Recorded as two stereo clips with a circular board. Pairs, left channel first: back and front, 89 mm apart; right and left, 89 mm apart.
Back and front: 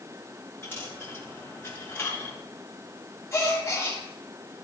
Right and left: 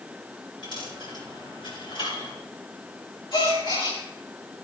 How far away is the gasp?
About 4 m.